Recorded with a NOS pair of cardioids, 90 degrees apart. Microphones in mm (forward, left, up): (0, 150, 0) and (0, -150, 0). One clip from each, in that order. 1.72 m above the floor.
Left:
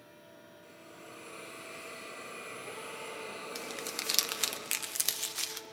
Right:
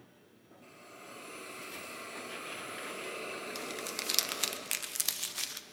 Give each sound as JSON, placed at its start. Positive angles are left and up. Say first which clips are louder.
{"t": 0.6, "sound": "a hiss", "louder": "right 2 dB", "azimuth_deg": -60, "distance_m": 5.0}
{"t": 3.5, "sound": "crumpling", "louder": "even", "azimuth_deg": 5, "distance_m": 0.6}